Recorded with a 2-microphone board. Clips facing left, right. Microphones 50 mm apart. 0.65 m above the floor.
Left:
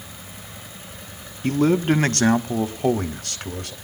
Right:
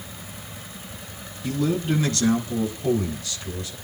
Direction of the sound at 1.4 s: 50° left (ahead or behind).